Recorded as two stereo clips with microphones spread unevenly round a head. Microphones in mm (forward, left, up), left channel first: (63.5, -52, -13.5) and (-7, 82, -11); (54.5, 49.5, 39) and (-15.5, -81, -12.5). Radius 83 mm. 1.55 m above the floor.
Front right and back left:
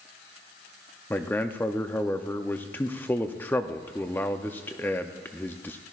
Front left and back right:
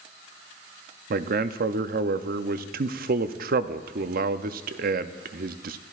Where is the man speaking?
140° right, 0.5 m.